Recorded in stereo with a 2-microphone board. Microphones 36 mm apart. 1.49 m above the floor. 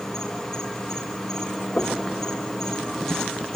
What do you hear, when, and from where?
0.0 s an insect: 15° left (ahead or behind), 2.5 m
1.8 s knocking: 55° left (ahead or behind), 1.3 m